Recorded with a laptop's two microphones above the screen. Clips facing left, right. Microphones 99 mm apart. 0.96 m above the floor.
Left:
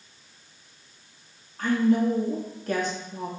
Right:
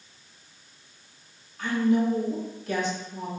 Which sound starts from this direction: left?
A woman speaking, at 1.6 s.